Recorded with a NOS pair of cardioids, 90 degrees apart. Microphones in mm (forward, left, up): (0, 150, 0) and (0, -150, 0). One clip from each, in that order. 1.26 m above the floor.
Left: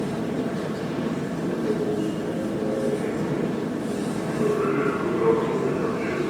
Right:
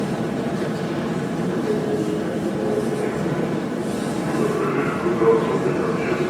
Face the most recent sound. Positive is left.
turn(degrees=-25)